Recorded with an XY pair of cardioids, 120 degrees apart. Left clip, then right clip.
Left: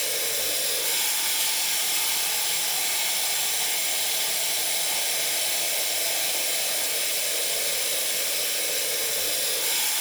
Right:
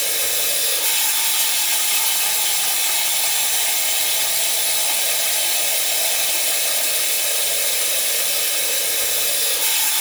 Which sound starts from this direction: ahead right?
Running water, at 0.0 s.